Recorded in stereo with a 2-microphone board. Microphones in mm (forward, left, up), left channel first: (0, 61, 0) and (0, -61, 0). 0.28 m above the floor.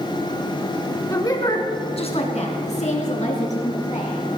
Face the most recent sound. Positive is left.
turn(degrees=70)  # may be behind; listen again after turning